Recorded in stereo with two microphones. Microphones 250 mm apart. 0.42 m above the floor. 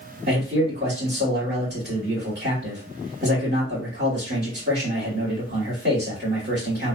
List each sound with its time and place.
0.3 s a man speaking: 40° right (ahead or behind), 2 m